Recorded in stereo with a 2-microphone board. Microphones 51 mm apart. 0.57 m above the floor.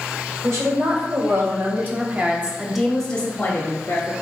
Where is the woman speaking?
65° right (ahead or behind), 1.8 m; by 4.1 s 50° left (ahead or behind), 1.2 m.